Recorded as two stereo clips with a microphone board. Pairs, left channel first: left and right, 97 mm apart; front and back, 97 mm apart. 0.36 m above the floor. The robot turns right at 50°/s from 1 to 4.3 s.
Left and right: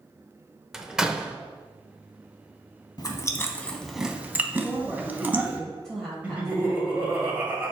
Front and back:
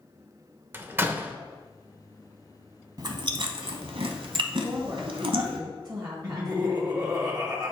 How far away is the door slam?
About 0.6 m.